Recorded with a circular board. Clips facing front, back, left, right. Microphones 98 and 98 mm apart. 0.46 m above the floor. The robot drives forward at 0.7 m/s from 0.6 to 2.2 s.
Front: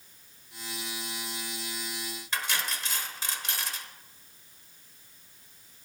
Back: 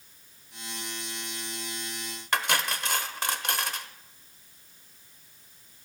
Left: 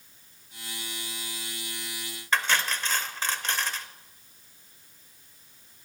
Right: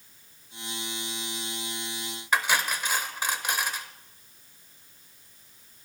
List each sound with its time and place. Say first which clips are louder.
2.3 s cutlery clinking: back 6 dB, right 1 dB; 165° right, 1.0 m